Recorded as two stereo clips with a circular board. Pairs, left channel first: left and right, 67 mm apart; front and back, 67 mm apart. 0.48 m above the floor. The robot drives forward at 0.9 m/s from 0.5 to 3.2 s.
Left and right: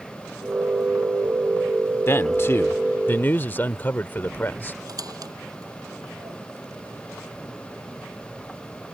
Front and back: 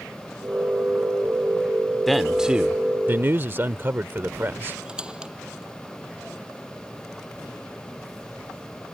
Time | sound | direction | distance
2.1 | a man speaking | 85° left | ?
4.8 | a squeak | 105° right | ?